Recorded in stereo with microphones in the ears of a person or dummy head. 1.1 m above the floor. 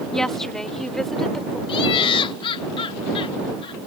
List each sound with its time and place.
0.1 s a woman speaking: 5° left (ahead or behind); by 1.6 s centre (ahead or behind)
1.7 s laughter: 30° left (ahead or behind)